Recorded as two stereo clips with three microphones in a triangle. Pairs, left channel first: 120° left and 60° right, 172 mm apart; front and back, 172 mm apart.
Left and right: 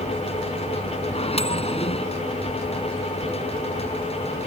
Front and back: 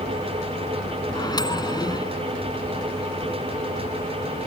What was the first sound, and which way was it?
A microwave, 65° left.